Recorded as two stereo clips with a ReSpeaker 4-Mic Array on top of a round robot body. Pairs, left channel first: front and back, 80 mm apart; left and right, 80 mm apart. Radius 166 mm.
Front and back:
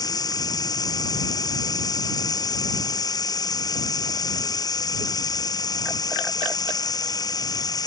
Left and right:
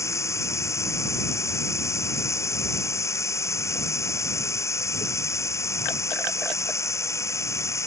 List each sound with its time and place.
0.0 s running water: 35° left